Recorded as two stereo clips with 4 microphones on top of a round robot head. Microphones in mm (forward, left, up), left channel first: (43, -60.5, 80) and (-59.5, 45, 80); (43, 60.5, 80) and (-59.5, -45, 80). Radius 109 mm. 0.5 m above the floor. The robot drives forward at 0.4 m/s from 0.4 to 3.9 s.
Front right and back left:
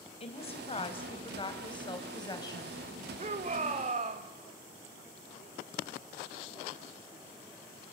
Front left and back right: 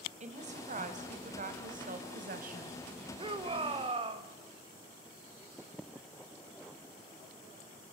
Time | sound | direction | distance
0.2 | a woman speaking | 95° right | 3 m
3.2 | a shout | 175° left | 2 m